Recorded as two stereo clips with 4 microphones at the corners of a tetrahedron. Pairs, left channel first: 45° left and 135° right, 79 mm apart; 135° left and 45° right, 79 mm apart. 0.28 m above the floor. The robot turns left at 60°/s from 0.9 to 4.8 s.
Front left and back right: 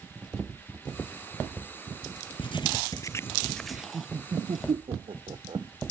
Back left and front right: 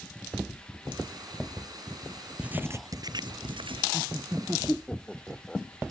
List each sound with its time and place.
2.4 s writing: 30° left; by 3.8 s 55° right
3.9 s laughter: 90° right; by 5.7 s 145° right